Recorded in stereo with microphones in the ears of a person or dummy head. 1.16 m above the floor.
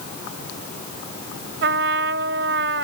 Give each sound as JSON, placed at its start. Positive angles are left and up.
{"t": 1.6, "sound": "a trumpet", "side_deg": -65}